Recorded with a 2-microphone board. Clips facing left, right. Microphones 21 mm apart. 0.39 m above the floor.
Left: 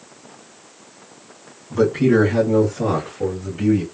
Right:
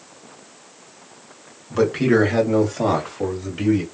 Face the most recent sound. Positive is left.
turn(degrees=-55)  # may be behind; listen again after turning